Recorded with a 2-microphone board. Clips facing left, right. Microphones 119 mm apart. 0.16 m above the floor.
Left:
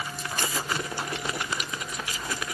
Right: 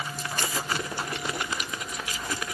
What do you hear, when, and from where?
Only background noise.